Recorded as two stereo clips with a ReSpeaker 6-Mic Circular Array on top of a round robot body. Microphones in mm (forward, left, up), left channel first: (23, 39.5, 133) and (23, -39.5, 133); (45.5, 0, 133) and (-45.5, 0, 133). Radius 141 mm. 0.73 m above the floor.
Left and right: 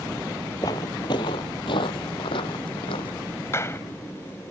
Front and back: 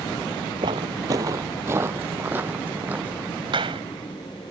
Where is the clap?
150° left.